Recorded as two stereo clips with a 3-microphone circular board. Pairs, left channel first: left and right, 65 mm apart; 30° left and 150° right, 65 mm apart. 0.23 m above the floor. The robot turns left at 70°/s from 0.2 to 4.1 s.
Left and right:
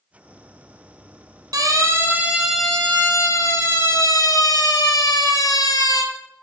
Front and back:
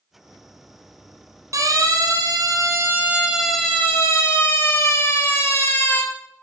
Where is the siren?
110° right, 6 m; by 6.0 s 90° left, 4 m.